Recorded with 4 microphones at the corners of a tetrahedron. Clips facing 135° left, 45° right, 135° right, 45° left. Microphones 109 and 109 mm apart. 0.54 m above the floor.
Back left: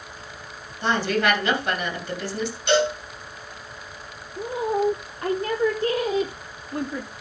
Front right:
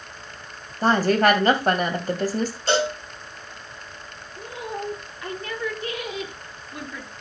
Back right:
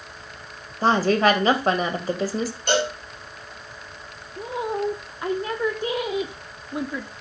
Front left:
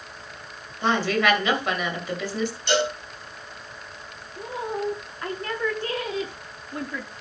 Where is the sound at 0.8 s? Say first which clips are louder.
Front right 4 dB, back right 4 dB; 85° right, 2.5 m.